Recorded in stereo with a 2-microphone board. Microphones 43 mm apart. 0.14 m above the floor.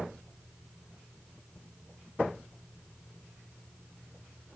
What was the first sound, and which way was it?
Only background noise.